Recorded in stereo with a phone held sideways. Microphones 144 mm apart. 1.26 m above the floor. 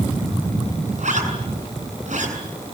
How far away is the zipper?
About 7.5 m.